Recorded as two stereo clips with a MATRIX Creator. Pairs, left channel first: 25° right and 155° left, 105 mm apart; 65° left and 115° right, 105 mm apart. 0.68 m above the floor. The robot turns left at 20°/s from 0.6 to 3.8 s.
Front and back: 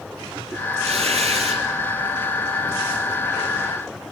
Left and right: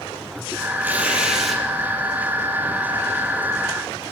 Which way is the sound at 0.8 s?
175° left.